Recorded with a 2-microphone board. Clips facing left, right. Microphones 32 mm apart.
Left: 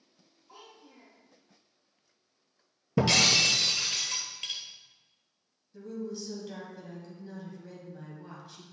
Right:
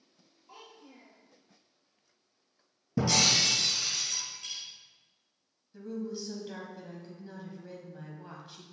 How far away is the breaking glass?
About 1.5 m.